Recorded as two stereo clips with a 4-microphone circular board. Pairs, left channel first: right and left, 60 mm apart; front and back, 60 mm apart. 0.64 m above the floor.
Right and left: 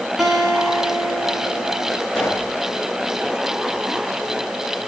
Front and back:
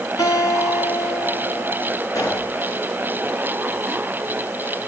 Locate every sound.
0.2 s a guitar: straight ahead, 7 m
2.1 s a pop: 10° right, 9.5 m